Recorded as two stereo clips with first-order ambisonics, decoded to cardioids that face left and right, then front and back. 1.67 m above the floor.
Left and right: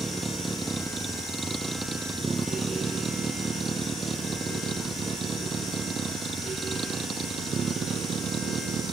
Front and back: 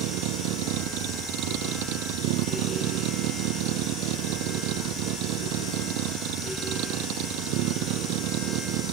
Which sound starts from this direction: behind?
A vehicle, at 0.0 s.